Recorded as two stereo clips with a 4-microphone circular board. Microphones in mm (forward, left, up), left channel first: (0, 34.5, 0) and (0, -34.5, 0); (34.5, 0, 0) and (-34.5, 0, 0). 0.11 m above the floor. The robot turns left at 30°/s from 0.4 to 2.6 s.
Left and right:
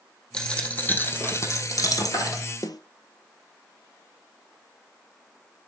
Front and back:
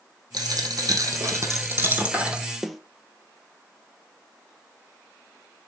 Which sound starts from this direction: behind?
A dropped coin, at 0.3 s.